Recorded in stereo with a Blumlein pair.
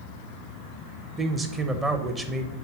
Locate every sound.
1.2 s a man speaking: 15° right, 0.8 m